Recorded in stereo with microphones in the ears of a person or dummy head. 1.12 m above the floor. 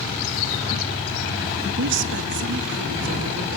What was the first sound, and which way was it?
A woman speaking, 60° right (ahead or behind).